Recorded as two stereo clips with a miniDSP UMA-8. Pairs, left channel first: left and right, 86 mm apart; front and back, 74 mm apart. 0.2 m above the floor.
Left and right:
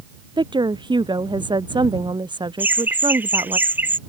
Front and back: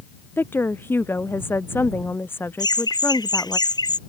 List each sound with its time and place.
0.4 s a woman speaking: 60° right
2.6 s laughter: 20° right